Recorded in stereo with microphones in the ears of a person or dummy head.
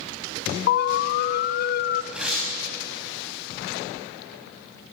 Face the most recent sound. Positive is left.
turn(degrees=0)  # may be behind; listen again after turning